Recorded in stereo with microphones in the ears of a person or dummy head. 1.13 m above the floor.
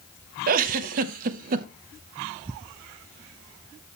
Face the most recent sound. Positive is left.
turn(degrees=-50)  # may be behind; listen again after turning